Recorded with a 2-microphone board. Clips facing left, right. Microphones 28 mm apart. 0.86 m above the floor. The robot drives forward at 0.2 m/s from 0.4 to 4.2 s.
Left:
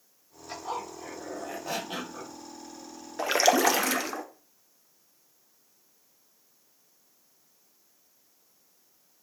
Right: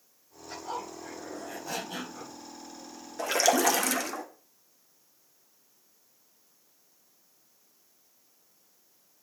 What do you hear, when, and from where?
0.5 s a zipper: 55° left (ahead or behind), 2.5 m; by 2.3 s 60° left (ahead or behind), 2 m
3.2 s a splash: 25° left (ahead or behind), 0.7 m; by 4.2 s 20° left (ahead or behind), 0.9 m